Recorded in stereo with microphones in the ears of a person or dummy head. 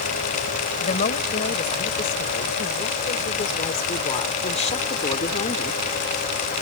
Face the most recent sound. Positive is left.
turn(degrees=30)  # may be behind; listen again after turning